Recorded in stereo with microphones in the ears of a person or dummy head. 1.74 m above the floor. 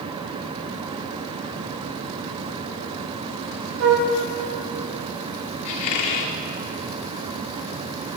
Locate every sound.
3.8 s a flute: 60° right (ahead or behind), 2 m
5.7 s a squeak: 35° left (ahead or behind), 1.5 m